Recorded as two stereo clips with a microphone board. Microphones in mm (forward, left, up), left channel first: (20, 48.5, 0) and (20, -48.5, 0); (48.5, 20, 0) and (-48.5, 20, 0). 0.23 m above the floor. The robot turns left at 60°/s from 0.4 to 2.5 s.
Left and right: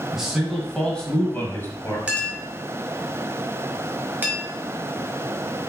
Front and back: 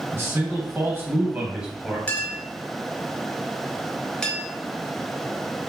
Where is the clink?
40° right, 0.9 m; by 4.4 s 65° right, 0.9 m.